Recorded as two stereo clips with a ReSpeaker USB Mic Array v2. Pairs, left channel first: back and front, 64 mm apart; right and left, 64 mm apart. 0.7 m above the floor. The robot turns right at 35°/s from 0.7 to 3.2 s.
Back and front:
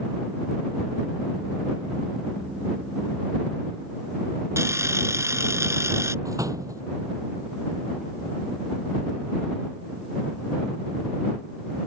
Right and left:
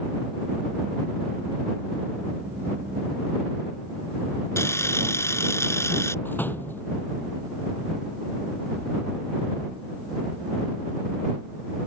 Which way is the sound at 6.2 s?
30° right.